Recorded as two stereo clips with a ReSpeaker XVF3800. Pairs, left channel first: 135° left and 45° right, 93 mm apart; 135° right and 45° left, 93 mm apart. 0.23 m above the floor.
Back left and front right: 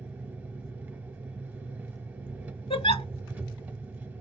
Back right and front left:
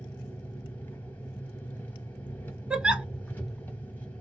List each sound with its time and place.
0.0 s an engine running: 95° right, 1.3 m
2.7 s a giggle: 125° left, 0.7 m